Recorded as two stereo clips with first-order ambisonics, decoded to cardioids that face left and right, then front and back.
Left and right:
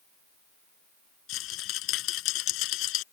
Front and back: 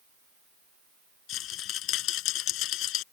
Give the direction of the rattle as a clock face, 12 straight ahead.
10 o'clock.